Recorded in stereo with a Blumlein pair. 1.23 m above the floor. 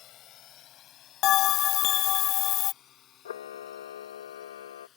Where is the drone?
35° left; by 5.0 s 30° left.